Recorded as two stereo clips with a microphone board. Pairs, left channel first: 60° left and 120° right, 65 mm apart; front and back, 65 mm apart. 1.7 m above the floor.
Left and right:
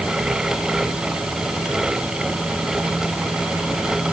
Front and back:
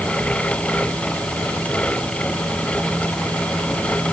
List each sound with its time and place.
Only background noise.